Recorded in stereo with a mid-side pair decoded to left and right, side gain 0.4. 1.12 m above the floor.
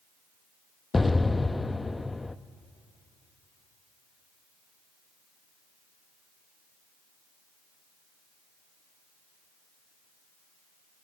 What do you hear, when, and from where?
0.9 s an explosion: 20° left, 0.7 m